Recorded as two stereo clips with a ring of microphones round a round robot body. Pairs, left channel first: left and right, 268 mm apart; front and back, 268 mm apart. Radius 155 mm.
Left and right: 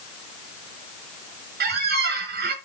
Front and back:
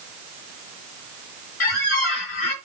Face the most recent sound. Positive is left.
turn(degrees=-35)